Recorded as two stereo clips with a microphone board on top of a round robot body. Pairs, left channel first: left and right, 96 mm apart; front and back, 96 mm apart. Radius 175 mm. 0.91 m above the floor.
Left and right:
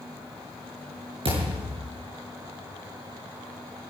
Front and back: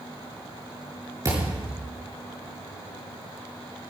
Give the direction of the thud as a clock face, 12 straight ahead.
4 o'clock.